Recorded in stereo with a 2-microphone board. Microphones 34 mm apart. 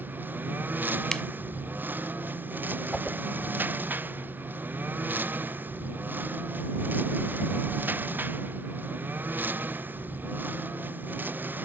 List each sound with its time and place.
0.0 s a lawn mower: 65° right (ahead or behind)
1.1 s a finger snap: 15° left (ahead or behind)
2.9 s a whoosh: 5° left (ahead or behind)